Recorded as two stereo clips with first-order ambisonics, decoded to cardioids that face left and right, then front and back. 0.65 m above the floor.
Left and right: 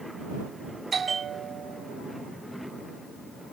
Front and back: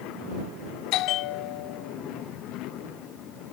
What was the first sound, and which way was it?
A bell, 20° right.